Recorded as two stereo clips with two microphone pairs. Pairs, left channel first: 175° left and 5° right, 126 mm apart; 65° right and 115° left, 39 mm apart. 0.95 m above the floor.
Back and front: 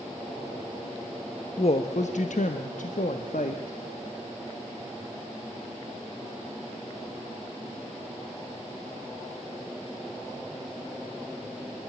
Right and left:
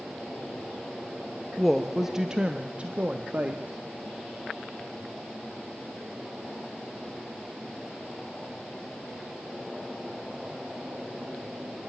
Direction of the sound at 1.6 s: 150° right.